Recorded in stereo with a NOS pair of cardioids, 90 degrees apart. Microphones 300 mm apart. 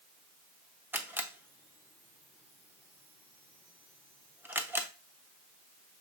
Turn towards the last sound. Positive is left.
turn(degrees=-5)